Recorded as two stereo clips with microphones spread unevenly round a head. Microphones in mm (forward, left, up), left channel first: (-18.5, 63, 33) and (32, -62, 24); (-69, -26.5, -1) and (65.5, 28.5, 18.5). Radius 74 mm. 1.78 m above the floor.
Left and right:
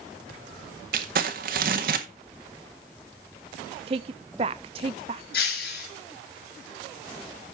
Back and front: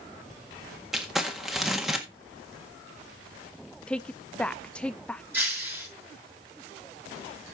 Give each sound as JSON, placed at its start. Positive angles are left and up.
{"t": 0.9, "sound": "crumpling", "azimuth_deg": -60, "distance_m": 1.6}
{"t": 3.9, "sound": "a woman speaking", "azimuth_deg": -65, "distance_m": 0.5}
{"t": 5.3, "sound": "breaking glass", "azimuth_deg": 100, "distance_m": 6.0}